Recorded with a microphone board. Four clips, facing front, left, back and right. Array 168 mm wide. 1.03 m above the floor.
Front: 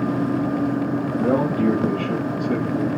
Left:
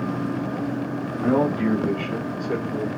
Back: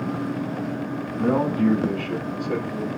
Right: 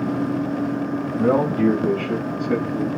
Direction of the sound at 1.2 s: 85° right.